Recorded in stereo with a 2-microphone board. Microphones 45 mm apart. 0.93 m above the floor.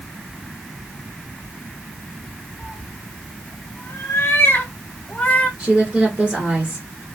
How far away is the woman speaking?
About 1.0 m.